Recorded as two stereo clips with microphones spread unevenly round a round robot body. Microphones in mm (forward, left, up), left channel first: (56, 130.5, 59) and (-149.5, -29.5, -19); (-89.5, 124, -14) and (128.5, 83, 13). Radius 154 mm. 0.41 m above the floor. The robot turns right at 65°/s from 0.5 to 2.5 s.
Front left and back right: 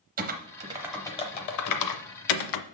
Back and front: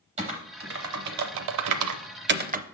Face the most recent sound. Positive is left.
turn(degrees=50)